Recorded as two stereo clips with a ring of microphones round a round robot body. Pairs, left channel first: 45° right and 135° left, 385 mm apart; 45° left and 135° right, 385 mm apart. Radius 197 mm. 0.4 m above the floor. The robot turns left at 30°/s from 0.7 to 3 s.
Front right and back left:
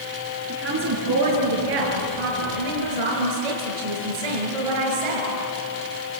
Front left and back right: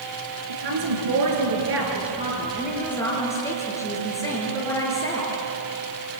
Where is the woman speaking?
165° right, 6 m; by 5.3 s 130° left, 6 m.